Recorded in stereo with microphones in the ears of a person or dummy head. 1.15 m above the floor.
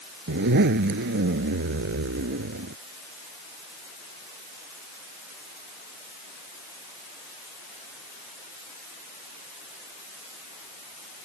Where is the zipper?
65° right (ahead or behind).